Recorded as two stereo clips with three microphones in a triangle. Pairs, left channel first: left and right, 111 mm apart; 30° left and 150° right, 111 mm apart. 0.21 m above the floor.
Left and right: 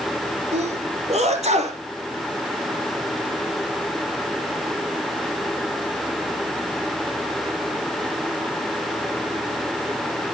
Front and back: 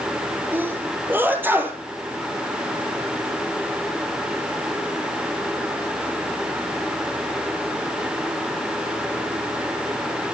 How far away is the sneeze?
About 4.5 m.